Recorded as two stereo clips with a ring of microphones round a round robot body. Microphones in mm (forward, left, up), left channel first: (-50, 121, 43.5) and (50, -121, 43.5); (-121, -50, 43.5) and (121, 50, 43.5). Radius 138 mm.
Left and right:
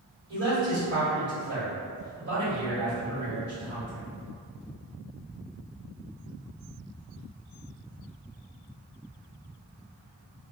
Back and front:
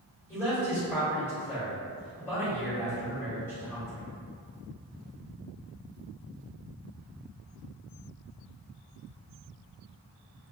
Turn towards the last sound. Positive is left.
turn(degrees=-80)